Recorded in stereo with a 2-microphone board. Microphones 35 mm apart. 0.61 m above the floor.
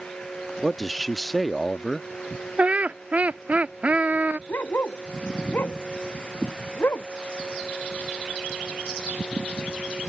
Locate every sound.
0.6 s a man speaking: centre (ahead or behind)
2.6 s laughter: 45° right (ahead or behind)
4.5 s a dog barking: 75° left (ahead or behind)